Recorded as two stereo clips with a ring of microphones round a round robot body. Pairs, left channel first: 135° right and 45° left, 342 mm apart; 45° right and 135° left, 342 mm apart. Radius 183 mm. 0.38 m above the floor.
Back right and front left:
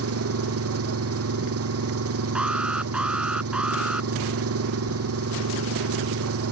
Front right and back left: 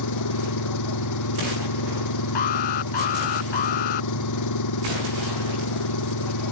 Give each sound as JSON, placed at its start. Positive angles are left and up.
{"t": 0.0, "sound": "an engine running", "azimuth_deg": -5}
{"t": 2.4, "sound": "an alarm", "azimuth_deg": -40}